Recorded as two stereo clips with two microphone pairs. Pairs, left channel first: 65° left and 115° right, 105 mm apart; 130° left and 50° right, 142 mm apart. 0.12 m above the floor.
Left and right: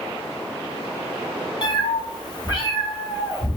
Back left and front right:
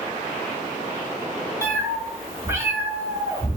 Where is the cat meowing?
20° left, 0.9 m.